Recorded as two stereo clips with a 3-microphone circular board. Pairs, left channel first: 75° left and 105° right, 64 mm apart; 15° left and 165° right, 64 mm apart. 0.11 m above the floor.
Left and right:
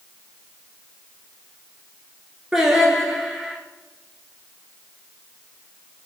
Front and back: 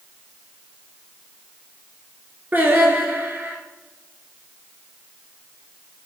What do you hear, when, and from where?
2.5 s singing: straight behind, 0.9 m